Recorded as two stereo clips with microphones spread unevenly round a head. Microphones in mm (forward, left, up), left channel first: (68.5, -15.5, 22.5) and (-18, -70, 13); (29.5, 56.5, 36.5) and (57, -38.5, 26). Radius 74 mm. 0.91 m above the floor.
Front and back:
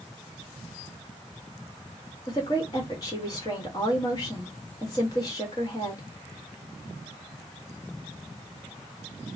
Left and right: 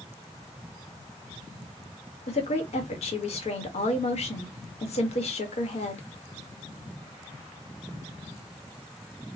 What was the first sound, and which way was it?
A woman speaking, 95° left.